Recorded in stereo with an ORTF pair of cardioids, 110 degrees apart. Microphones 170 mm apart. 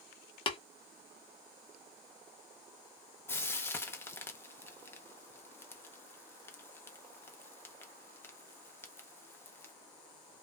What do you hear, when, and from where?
0.5 s tapping: 30° left, 0.6 m
3.3 s frying: 15° left, 0.5 m